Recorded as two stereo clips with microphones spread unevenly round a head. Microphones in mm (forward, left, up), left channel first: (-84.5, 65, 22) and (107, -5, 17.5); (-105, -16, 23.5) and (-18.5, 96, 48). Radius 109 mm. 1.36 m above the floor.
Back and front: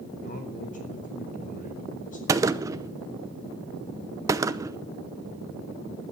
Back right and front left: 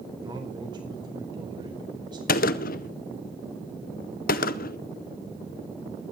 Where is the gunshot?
95° right, 0.6 m.